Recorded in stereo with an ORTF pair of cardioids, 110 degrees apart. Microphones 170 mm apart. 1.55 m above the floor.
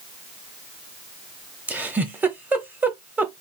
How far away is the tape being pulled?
I don't hear tape being pulled.